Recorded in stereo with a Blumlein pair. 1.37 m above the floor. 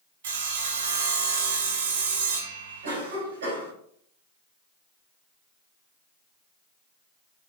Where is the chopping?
No chopping in this recording.